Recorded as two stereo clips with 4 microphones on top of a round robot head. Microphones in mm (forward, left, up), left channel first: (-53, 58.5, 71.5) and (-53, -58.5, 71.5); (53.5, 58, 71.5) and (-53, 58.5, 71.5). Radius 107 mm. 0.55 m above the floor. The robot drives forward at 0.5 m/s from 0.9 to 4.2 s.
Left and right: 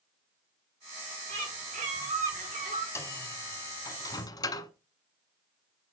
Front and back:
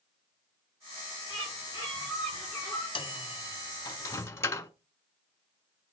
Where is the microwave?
25° left, 1.3 m; by 4.7 s 55° left, 0.9 m.